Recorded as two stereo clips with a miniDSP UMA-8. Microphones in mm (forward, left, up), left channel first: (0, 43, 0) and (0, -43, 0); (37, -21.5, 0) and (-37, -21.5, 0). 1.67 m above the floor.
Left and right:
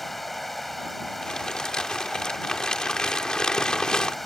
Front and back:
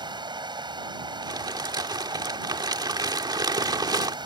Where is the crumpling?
170° left.